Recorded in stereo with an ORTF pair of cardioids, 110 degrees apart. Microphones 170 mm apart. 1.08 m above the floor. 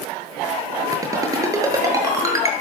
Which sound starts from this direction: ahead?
A ringtone, at 0.9 s.